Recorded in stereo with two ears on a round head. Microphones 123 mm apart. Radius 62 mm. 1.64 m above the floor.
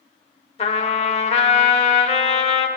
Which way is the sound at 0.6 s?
45° left (ahead or behind).